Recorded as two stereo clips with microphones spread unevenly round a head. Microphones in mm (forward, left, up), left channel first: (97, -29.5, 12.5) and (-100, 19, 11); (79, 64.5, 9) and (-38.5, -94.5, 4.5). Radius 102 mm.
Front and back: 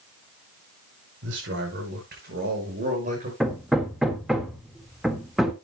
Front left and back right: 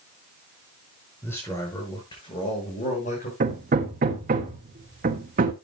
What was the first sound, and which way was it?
A man speaking, 135° left.